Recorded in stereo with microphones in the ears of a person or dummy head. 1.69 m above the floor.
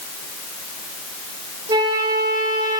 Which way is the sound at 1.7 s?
25° right (ahead or behind).